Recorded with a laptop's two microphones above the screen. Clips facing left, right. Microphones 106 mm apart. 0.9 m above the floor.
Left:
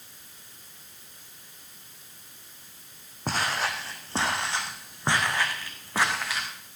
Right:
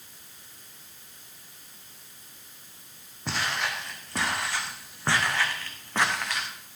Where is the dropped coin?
I don't hear a dropped coin.